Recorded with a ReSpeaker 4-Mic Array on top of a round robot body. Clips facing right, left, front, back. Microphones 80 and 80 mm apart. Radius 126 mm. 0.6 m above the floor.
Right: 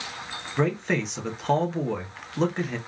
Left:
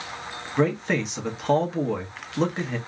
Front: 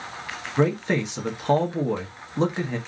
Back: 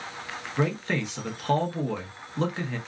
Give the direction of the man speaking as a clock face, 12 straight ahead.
12 o'clock.